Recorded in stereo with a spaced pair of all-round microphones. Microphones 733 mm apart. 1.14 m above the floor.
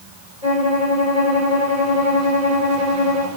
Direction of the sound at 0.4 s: 55° left (ahead or behind).